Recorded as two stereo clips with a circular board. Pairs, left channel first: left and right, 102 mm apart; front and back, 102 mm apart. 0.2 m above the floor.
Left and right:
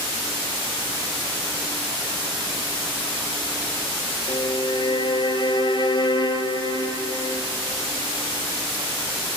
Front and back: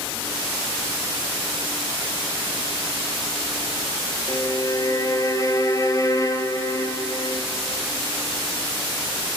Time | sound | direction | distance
4.3 | a violin | 55° left | 0.6 m